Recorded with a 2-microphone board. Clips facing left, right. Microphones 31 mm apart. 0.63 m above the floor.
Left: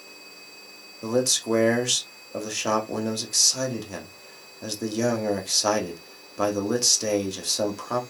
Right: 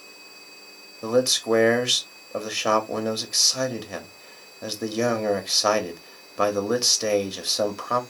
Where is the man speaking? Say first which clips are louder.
Right 3 dB; 20° right (ahead or behind), 1.2 m.